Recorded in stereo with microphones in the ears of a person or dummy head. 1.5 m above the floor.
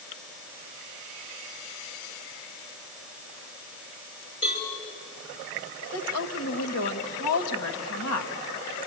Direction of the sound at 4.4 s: 30° left (ahead or behind).